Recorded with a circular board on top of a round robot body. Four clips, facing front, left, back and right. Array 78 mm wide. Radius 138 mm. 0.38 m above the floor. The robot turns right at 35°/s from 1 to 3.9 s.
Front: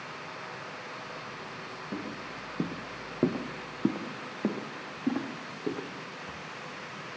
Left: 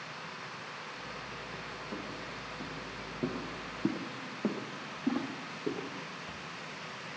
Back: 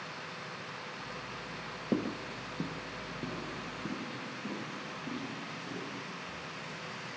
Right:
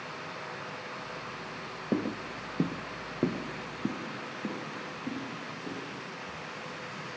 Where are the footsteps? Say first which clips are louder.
Right 13 dB, back 6 dB; 125° right, 0.6 m; by 6.4 s 20° left, 3 m.